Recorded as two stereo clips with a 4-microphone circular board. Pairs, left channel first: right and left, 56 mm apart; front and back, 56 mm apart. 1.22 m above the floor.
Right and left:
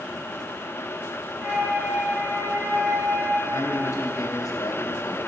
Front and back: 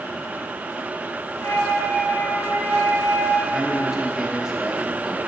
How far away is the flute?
About 1.3 m.